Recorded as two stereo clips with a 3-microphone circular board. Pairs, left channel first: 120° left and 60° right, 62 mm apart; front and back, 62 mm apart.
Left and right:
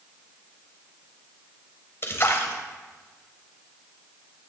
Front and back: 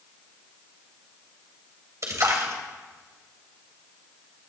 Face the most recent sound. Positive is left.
turn(degrees=160)